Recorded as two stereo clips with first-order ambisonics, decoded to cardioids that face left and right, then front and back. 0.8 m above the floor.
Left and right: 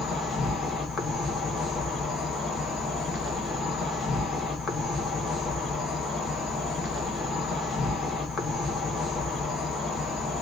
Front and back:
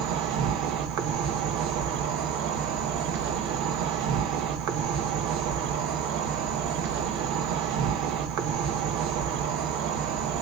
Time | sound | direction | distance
0.0 | an insect | 160° left | 0.9 m